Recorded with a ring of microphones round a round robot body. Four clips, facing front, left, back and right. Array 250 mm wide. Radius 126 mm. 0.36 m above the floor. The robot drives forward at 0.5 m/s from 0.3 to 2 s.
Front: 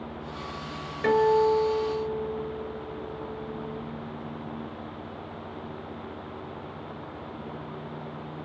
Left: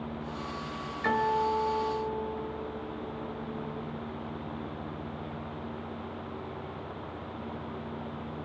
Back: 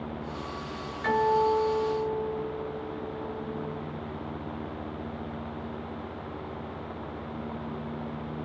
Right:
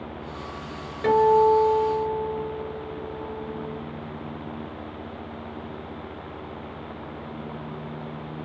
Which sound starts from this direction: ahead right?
A guitar, at 1.0 s.